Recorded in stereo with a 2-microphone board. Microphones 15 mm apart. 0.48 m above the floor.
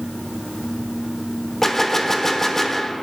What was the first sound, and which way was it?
A gunshot, 20° left (ahead or behind).